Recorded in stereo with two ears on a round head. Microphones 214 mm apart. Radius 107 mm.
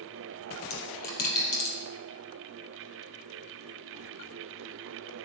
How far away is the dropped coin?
About 3.5 m.